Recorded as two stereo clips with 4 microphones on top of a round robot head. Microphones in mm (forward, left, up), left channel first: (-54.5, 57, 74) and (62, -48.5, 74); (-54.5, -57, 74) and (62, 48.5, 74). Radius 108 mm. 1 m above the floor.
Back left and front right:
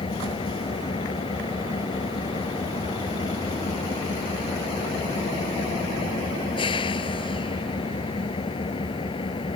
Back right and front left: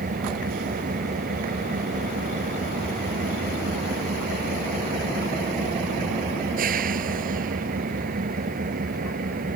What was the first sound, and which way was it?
An engine running, 80° left.